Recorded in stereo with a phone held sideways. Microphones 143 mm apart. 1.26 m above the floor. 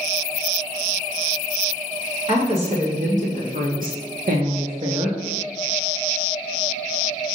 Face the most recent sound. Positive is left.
turn(degrees=-30)  # may be behind; listen again after turning